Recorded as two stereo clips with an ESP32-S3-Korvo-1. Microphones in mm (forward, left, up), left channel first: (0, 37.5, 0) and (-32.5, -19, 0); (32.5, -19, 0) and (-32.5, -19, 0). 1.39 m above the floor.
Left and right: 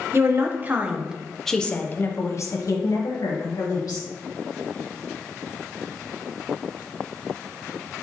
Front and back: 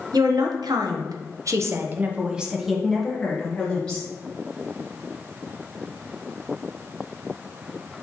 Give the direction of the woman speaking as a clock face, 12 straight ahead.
6 o'clock.